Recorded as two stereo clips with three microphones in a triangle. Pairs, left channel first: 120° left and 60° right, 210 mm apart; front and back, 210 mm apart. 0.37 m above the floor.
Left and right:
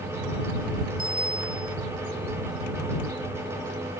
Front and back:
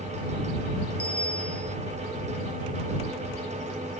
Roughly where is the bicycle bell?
Right.